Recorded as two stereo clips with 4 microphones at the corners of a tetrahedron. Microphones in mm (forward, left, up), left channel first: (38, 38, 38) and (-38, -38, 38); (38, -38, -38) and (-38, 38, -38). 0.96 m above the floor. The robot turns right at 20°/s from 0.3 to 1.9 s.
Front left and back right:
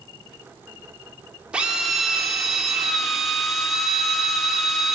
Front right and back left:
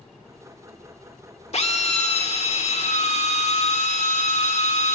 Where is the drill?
55° right, 1.8 m; by 5.0 s 45° right, 1.8 m.